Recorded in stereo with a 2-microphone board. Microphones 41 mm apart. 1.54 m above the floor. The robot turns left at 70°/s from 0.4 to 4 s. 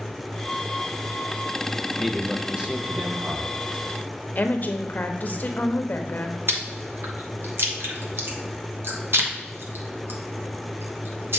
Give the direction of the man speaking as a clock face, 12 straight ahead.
12 o'clock.